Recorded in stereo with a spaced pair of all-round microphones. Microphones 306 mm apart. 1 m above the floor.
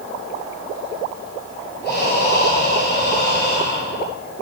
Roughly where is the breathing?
Left.